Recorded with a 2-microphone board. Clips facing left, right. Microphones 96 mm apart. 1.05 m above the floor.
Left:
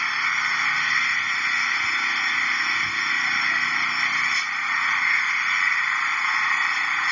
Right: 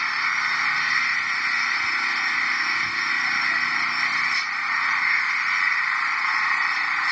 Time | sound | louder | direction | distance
0.0 | an engine running | even | 5° right (ahead or behind) | ?